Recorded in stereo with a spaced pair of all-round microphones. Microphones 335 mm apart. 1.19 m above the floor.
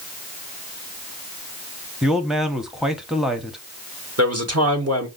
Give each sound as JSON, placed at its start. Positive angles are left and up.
{"t": 2.0, "sound": "a man speaking", "side_deg": 0, "distance_m": 0.8}
{"t": 4.2, "sound": "a man speaking", "side_deg": -50, "distance_m": 1.2}